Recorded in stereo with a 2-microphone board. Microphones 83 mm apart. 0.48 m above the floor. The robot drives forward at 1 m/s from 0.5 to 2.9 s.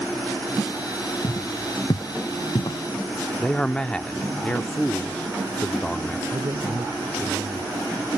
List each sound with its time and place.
1.2 s footsteps: 65° left (ahead or behind); by 2.8 s 80° left
3.4 s a man speaking: 10° left (ahead or behind)
6.3 s a man speaking: 75° right (ahead or behind)